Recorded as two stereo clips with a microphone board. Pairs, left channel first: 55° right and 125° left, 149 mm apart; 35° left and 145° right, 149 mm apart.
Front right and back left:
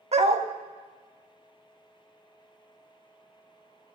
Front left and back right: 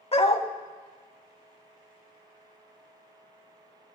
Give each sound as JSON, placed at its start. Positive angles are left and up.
{"t": 0.1, "sound": "a dog barking", "azimuth_deg": 80, "distance_m": 0.6}